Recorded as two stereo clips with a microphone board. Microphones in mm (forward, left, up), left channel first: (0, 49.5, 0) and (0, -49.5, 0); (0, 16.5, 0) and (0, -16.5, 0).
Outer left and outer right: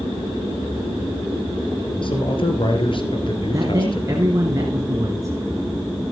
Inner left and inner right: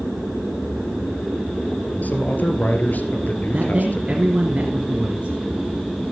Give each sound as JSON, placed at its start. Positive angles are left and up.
{"t": 2.0, "sound": "a man speaking", "side_deg": 55, "distance_m": 2.5}
{"t": 3.5, "sound": "a man speaking", "side_deg": -30, "distance_m": 2.0}